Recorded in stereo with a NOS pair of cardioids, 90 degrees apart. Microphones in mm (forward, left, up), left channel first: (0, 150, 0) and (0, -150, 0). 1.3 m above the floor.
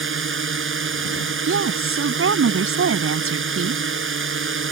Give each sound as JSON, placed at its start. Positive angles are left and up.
{"t": 0.0, "sound": "a drone", "azimuth_deg": -40}
{"t": 1.5, "sound": "a woman speaking", "azimuth_deg": -45}